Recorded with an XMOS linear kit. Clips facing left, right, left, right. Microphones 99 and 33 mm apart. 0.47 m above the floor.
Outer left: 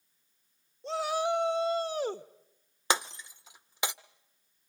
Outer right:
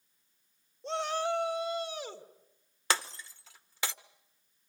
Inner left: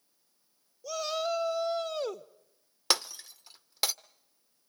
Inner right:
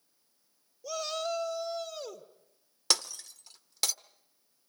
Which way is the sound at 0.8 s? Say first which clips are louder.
Outer left 2 dB, inner left 2 dB; centre (ahead or behind).